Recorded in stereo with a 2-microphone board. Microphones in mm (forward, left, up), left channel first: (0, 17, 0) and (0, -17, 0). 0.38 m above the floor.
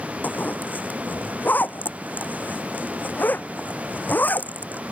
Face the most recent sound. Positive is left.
turn(degrees=55)  # may be behind; listen again after turning